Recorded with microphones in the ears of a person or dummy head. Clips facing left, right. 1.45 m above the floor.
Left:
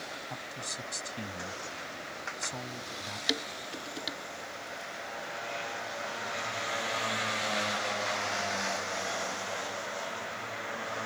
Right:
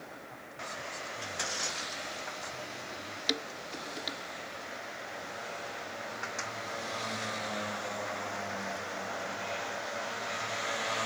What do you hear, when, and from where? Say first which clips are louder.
0.3 s a man speaking: left 2 dB; 75° left (ahead or behind)
3.3 s dishes clattering: left 1 dB; 5° left (ahead or behind)